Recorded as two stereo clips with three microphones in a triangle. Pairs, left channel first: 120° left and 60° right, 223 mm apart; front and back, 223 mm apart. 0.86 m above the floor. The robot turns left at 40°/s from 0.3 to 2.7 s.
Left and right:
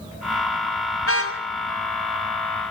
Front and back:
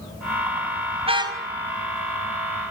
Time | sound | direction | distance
1.0 | a car horn | 120° left | 3 m